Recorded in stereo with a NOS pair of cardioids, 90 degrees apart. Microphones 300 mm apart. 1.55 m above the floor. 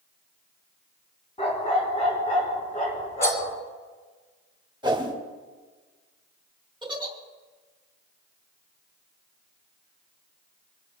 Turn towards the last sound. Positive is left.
turn(degrees=-15)